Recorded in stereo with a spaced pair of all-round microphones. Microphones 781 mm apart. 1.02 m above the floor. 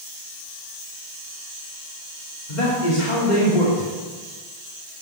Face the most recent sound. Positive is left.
turn(degrees=65)  # may be behind; listen again after turning